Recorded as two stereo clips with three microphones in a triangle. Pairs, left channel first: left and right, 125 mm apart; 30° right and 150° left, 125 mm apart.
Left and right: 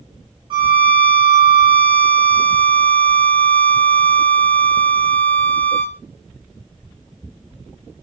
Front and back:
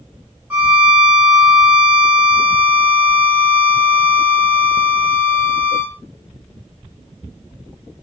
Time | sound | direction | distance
0.5 | a violin | 135° right | 1.7 m